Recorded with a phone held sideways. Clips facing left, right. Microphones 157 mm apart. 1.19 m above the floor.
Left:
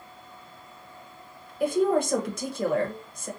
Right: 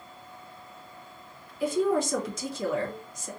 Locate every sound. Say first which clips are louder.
1.6 s a woman speaking: left 2 dB; 60° left (ahead or behind), 0.9 m